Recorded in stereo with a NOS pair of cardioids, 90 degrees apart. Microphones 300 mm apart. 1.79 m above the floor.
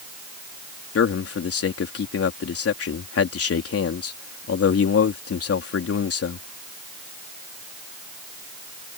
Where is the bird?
I don't hear a bird.